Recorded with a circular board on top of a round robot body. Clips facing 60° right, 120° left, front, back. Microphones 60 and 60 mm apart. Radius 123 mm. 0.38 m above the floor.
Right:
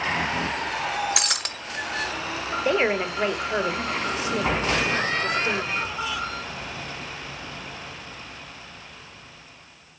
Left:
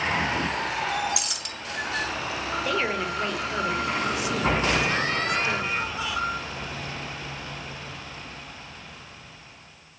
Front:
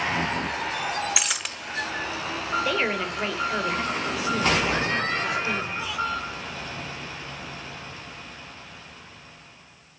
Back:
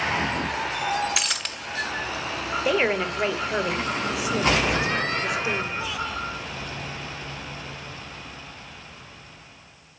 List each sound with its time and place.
1.2 s breaking glass: 85° right, 1.3 m
2.6 s a woman speaking: 110° right, 2.5 m